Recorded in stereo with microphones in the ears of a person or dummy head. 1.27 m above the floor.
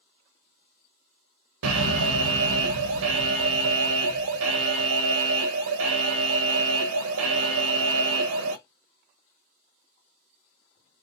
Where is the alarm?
65° right (ahead or behind), 0.7 m.